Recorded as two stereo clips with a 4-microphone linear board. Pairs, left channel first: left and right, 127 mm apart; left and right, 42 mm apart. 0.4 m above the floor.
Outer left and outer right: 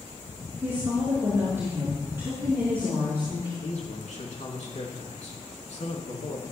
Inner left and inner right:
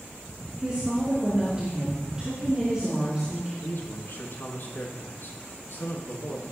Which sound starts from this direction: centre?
A woman speaking, at 0.6 s.